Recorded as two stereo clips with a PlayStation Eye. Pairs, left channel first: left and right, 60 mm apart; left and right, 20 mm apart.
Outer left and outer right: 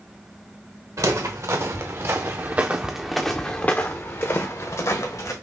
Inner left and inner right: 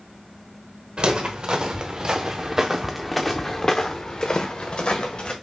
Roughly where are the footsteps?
Right.